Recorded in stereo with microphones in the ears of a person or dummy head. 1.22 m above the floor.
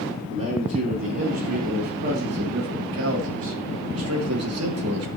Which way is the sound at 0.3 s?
35° right (ahead or behind).